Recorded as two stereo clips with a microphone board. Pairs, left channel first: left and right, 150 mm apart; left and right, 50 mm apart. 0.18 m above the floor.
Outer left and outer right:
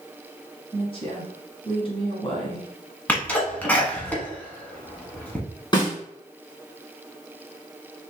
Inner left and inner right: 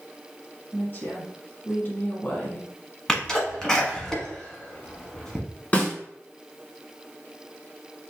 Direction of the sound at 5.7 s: 30° left (ahead or behind).